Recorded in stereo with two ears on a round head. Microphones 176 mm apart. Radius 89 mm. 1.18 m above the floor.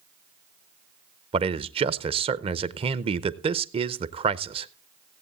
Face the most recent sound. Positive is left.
turn(degrees=-25)  # may be behind; listen again after turning